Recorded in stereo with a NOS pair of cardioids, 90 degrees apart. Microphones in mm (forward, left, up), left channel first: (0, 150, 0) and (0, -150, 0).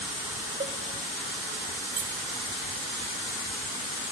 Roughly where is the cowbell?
Ahead right.